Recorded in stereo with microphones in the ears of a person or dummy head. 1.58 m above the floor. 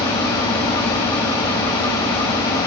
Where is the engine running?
25° left (ahead or behind), 1.9 m.